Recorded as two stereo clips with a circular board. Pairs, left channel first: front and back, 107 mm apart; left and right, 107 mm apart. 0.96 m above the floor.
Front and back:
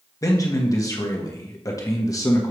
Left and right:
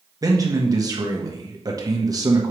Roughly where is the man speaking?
Ahead right.